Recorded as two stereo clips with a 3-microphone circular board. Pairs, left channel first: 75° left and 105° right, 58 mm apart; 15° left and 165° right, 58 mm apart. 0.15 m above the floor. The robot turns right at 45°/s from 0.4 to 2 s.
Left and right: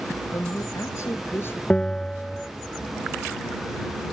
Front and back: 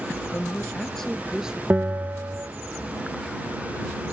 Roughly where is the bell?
Behind left.